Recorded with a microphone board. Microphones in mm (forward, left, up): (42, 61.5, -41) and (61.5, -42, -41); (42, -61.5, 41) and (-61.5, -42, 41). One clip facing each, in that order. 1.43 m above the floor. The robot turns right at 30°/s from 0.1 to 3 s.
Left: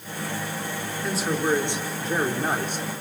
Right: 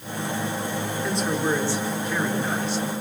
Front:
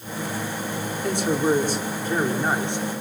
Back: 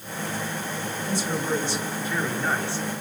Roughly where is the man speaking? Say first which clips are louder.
Left 1 dB, front 7 dB; ahead.